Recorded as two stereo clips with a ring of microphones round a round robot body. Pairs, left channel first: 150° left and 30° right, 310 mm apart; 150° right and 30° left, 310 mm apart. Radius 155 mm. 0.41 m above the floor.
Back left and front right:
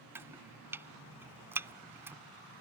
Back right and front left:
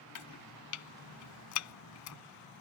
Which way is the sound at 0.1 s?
115° right.